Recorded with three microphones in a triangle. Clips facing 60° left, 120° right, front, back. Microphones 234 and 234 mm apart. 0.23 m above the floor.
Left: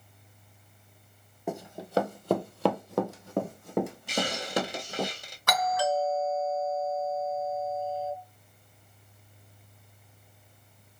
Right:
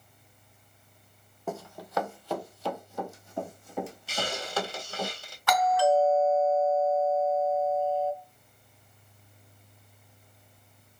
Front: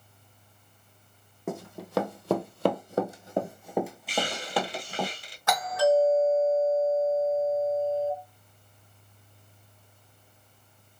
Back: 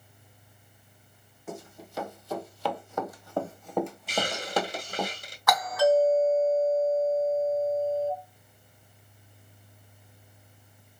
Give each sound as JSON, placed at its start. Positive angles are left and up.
{"t": 1.5, "sound": "running footsteps", "azimuth_deg": -20, "distance_m": 0.8}
{"t": 4.1, "sound": "a hiss", "azimuth_deg": 135, "distance_m": 1.4}
{"t": 5.5, "sound": "a doorbell", "azimuth_deg": 50, "distance_m": 2.0}